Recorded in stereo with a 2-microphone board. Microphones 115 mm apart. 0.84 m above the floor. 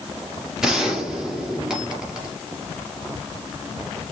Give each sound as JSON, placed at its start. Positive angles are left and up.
{"t": 0.6, "sound": "a gunshot", "side_deg": -5, "distance_m": 2.5}